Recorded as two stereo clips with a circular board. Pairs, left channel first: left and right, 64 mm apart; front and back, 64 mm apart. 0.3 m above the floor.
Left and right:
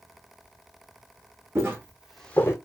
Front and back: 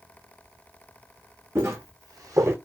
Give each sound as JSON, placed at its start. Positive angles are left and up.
{"t": 1.6, "sound": "footsteps", "azimuth_deg": -135, "distance_m": 1.1}